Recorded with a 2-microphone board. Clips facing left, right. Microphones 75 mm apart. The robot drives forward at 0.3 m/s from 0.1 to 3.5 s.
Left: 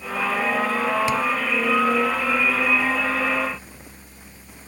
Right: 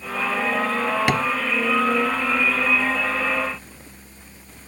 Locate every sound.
1.1 s tapping: 65° right (ahead or behind)